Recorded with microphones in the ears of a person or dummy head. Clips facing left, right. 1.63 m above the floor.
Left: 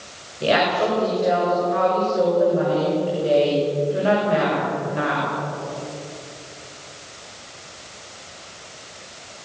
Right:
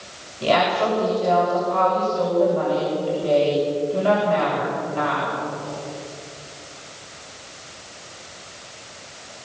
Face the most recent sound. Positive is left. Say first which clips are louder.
# even
turn(degrees=25)  # may be behind; listen again after turning